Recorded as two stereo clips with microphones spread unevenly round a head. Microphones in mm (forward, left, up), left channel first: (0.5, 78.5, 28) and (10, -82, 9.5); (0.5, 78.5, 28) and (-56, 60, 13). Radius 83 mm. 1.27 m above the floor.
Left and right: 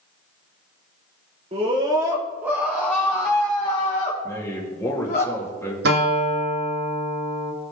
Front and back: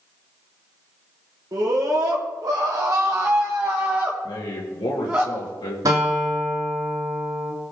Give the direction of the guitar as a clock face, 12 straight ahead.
4 o'clock.